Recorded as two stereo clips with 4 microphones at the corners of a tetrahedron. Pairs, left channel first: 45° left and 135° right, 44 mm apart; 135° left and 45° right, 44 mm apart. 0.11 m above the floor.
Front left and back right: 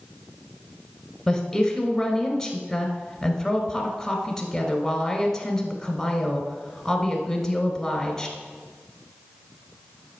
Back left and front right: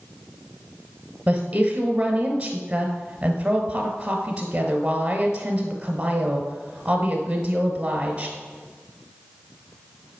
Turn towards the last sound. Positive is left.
turn(degrees=-30)